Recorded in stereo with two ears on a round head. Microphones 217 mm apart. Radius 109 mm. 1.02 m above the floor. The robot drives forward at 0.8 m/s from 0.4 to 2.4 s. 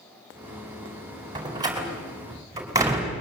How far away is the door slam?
About 4 m.